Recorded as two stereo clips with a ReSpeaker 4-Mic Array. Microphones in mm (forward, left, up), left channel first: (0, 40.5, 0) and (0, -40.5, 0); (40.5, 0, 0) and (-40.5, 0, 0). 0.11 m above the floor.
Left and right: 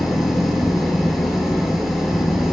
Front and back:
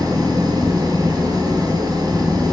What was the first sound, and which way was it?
An engine running, 175° right.